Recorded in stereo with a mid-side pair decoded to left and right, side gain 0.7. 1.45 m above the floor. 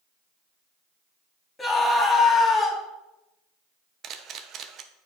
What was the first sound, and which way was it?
A scream, 15° left.